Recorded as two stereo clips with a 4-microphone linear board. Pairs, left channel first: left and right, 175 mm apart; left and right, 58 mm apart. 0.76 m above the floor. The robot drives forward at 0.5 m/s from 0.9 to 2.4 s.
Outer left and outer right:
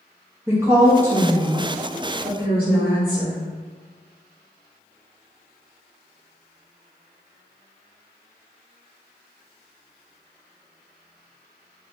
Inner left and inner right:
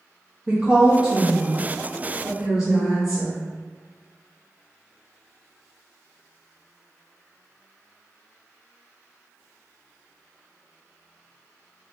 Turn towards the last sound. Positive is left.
turn(degrees=-10)  # may be behind; listen again after turning